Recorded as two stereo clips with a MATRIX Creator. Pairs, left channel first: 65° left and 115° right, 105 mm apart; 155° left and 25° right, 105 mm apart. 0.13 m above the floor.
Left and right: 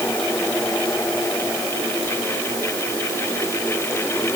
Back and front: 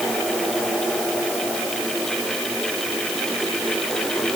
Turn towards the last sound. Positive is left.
No sound to turn to.